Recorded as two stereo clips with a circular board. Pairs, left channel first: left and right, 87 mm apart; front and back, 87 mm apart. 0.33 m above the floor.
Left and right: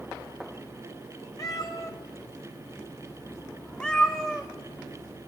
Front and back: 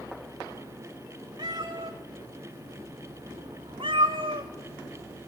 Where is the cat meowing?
140° left, 3 m; by 4.5 s straight behind, 3 m.